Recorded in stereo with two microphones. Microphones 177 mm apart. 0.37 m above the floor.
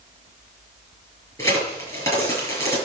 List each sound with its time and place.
1.4 s a crack: 15° left (ahead or behind), 7 m